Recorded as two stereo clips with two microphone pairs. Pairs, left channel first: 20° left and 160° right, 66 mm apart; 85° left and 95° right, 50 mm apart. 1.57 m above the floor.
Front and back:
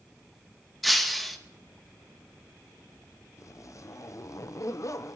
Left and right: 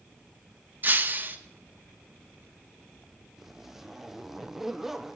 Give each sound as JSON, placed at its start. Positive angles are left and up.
{"t": 0.8, "sound": "breaking glass", "azimuth_deg": -70, "distance_m": 0.9}
{"t": 3.4, "sound": "a zipper", "azimuth_deg": -10, "distance_m": 0.6}